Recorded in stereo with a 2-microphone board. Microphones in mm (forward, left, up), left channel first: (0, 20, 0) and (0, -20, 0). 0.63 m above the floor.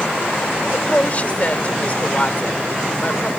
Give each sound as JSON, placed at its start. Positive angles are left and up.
{"t": 0.7, "sound": "a woman speaking", "side_deg": 35}